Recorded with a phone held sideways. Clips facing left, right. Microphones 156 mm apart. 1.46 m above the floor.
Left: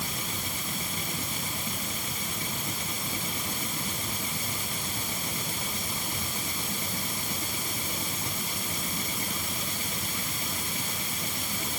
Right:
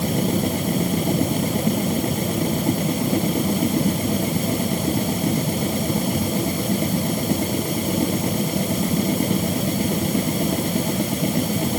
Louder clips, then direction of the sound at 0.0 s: Right 17 dB; 60° right (ahead or behind).